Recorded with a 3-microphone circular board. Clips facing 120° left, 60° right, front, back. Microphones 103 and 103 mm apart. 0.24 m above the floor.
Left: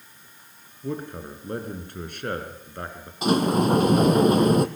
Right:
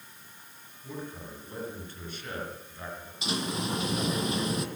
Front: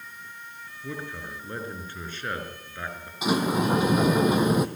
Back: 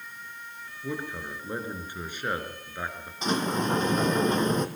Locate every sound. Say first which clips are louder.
0.8 s a man speaking: left 8 dB, back 2 dB; 105° left, 4 m
3.2 s a sliding door: left 12 dB, front 3 dB; 80° left, 1.2 m